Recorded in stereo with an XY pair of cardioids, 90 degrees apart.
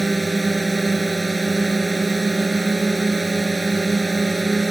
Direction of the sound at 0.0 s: 15° right.